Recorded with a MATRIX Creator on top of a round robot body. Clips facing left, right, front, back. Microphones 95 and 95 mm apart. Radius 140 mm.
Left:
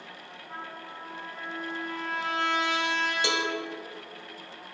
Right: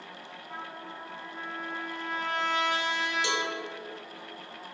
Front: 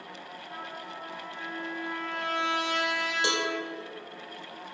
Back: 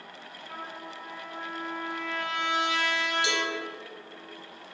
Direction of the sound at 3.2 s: 45° left.